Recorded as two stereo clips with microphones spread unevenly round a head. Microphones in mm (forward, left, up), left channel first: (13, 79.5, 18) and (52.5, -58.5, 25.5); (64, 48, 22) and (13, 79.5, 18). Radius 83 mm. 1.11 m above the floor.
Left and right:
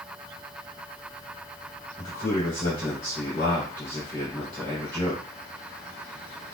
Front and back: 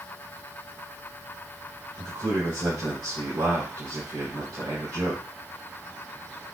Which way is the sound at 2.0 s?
Straight behind.